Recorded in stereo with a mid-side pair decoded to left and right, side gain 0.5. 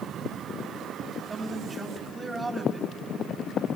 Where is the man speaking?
25° right, 5 m.